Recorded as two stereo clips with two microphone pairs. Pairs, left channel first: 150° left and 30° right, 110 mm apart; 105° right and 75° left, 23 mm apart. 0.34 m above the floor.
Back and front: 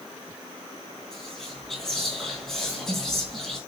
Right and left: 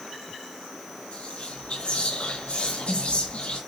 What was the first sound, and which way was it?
Whispering, 125° right.